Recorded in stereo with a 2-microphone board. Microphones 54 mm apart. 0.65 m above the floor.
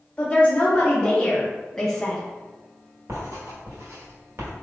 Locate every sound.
0.2 s a woman speaking: 20° left (ahead or behind), 1.8 m; by 2.2 s 5° left (ahead or behind), 0.7 m
3.1 s writing: 65° right (ahead or behind), 1.6 m